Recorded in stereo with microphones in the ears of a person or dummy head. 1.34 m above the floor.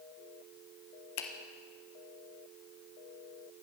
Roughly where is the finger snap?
Left.